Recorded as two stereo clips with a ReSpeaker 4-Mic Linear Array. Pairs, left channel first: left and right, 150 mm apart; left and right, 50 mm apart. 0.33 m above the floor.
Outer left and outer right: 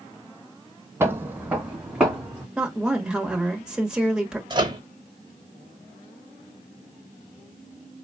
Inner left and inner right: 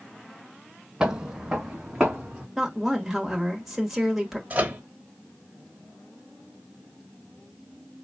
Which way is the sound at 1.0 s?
15° right (ahead or behind).